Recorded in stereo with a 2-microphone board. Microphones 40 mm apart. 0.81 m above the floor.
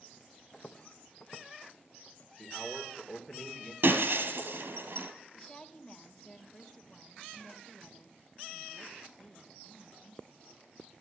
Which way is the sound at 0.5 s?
15° left (ahead or behind).